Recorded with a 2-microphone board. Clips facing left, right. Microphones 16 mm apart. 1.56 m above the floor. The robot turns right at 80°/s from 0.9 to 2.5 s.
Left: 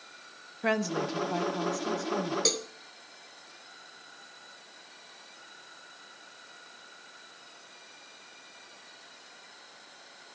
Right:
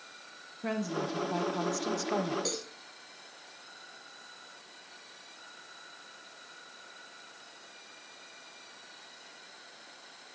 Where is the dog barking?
No dog barking in this recording.